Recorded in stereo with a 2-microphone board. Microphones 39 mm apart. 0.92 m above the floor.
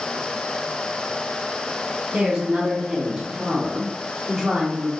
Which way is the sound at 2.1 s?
20° right (ahead or behind).